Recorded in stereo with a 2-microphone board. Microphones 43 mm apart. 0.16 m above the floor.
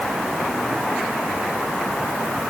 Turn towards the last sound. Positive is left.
No sound to turn to.